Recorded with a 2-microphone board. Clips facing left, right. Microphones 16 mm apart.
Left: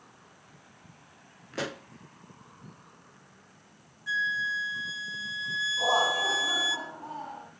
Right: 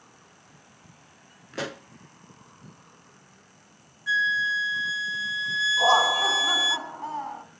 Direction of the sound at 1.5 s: 10° right (ahead or behind).